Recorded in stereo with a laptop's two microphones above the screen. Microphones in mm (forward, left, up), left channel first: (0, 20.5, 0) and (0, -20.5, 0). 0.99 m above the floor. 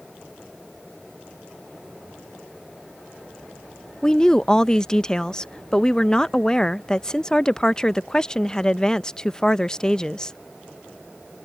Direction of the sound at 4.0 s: 20° left (ahead or behind).